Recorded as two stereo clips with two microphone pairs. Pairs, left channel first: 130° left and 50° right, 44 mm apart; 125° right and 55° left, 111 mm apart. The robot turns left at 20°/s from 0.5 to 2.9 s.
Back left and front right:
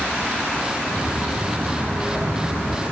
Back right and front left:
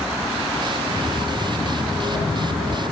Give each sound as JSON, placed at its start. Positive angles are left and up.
{"t": 0.8, "sound": "footsteps", "azimuth_deg": -60, "distance_m": 5.5}